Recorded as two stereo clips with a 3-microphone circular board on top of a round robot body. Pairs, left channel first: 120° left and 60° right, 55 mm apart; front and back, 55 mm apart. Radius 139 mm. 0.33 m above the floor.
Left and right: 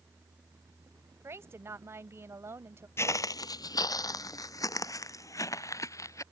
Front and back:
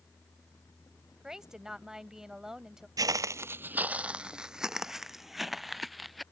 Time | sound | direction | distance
1.2 | a woman speaking | 100° right | ?
3.0 | footsteps | 170° left | ?